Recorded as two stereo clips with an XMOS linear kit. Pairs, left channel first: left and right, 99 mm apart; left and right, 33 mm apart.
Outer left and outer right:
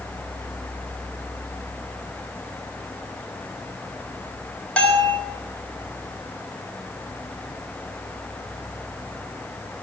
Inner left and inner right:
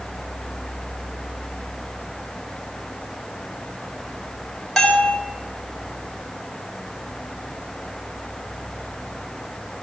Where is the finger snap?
No finger snap in this recording.